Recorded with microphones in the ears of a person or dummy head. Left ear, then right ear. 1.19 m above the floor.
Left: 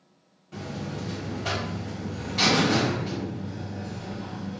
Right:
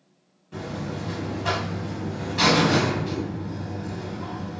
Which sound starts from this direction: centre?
A buzzer, at 0.5 s.